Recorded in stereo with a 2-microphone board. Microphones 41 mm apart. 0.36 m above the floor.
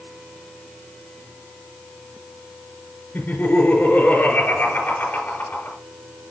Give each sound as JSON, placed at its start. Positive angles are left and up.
{"t": 3.1, "sound": "laughter", "side_deg": 50, "distance_m": 4.5}